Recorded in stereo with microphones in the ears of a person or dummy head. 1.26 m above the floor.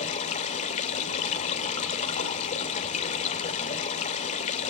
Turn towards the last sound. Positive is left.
turn(degrees=40)  # may be behind; listen again after turning